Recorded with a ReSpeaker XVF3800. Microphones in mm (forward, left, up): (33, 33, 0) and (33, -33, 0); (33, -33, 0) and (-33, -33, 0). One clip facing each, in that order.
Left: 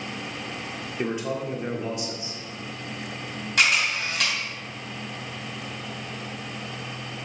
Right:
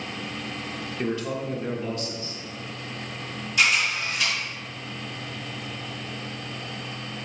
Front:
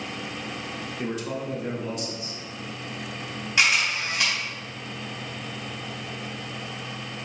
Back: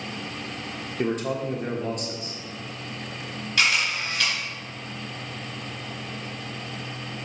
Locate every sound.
1.0 s a man speaking: 160° left, 1.3 m
3.6 s a camera shutter: 70° left, 2.5 m